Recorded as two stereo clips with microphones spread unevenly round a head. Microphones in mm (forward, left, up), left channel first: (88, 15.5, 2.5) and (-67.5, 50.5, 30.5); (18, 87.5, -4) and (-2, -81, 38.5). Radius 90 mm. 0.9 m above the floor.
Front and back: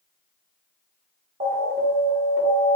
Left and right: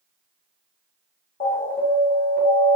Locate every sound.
1.4 s an alarm: 130° left, 1.8 m